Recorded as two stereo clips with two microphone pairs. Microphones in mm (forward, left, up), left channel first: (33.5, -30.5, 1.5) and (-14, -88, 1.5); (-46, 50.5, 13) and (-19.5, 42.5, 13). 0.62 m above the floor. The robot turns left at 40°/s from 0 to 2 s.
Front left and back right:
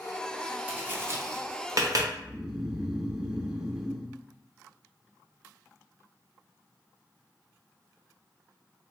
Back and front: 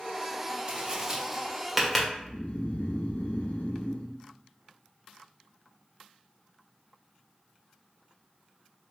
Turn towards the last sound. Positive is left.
turn(degrees=150)